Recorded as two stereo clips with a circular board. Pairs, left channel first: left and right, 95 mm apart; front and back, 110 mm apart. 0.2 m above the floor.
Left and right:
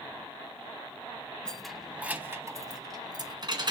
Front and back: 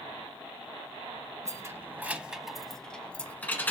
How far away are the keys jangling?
About 0.9 m.